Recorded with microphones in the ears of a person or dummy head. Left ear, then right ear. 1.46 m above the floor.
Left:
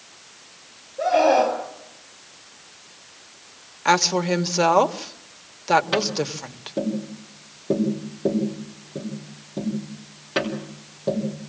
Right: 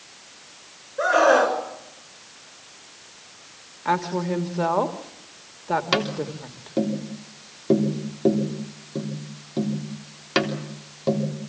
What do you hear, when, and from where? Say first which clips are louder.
1.0 s a scream: even; 60° right (ahead or behind), 5.5 m
3.9 s a woman speaking: left 5 dB; 75° left (ahead or behind), 1.4 m
5.9 s tapping: left 1 dB; 30° right (ahead or behind), 3.5 m